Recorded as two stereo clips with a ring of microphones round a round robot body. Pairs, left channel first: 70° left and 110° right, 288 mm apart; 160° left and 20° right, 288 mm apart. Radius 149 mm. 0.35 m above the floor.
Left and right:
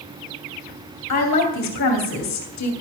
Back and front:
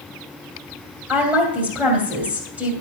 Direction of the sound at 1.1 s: 60° left.